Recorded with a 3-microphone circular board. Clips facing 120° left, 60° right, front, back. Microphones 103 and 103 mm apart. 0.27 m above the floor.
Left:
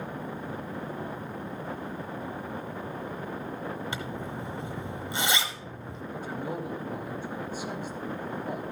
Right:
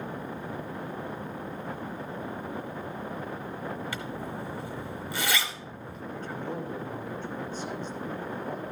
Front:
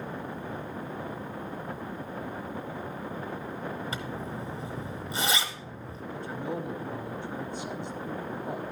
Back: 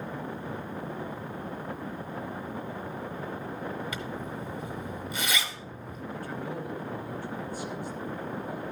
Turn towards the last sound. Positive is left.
turn(degrees=50)